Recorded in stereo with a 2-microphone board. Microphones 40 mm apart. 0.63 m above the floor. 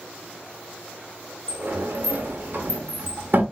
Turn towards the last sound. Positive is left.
turn(degrees=-50)  # may be behind; listen again after turning